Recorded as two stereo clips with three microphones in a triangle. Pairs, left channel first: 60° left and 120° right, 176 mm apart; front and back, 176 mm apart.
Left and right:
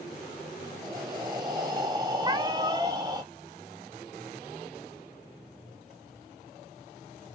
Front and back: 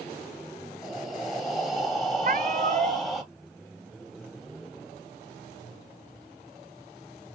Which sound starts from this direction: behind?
A cat meowing, at 2.2 s.